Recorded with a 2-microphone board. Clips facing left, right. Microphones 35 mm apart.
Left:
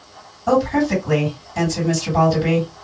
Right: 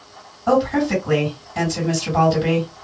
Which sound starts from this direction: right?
A woman speaking, at 0.5 s.